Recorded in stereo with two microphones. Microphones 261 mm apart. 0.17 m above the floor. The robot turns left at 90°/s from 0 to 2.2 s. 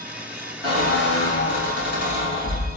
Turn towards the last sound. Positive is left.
turn(degrees=25)